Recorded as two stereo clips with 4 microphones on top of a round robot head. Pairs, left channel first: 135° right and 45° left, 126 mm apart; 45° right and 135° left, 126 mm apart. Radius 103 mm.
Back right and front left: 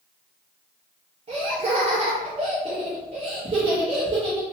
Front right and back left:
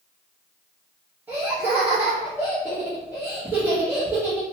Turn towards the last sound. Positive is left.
turn(degrees=65)